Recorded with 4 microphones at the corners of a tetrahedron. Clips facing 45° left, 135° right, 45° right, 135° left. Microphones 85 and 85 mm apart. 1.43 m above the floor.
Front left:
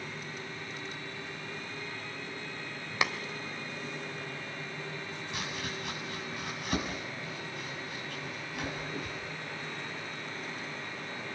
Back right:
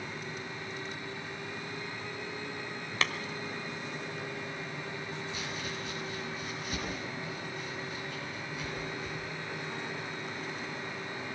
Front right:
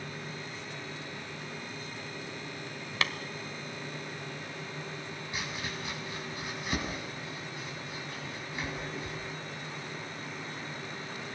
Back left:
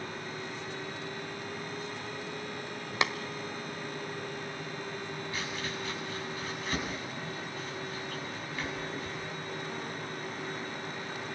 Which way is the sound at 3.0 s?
95° left.